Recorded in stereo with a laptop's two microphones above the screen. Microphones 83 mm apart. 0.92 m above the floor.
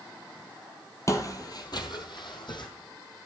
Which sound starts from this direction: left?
Footsteps, at 1.1 s.